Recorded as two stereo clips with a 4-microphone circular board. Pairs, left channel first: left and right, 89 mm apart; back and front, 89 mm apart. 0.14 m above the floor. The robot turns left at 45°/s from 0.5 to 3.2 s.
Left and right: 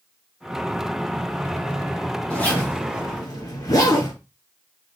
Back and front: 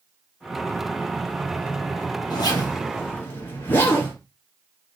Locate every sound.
2.3 s a zipper: 165° left, 2 m; by 4.1 s 125° left, 2 m